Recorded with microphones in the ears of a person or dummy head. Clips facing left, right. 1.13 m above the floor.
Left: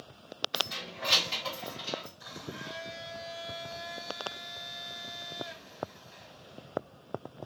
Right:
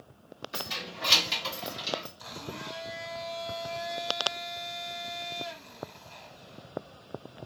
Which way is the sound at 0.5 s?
70° right (ahead or behind).